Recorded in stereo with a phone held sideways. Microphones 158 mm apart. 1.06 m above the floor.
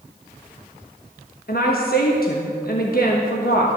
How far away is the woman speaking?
About 1.1 m.